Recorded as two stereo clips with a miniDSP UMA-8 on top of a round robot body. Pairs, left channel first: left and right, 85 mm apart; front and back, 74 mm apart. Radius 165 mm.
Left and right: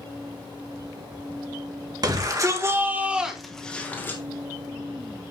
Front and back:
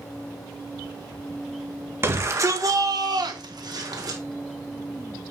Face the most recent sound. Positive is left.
turn(degrees=150)